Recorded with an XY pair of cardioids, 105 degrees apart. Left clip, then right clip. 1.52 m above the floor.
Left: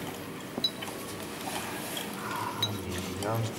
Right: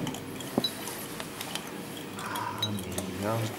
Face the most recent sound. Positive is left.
turn(degrees=-25)